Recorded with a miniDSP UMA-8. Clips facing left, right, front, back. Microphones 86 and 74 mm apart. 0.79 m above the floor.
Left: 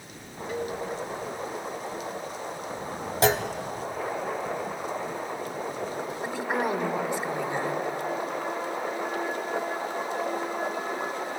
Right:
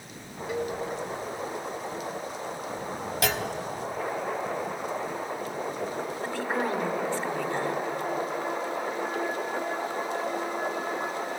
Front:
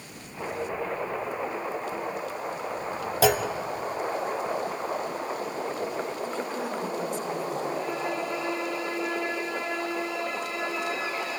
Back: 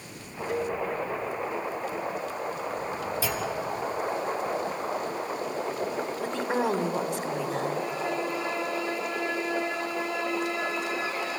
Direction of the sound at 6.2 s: 165° left.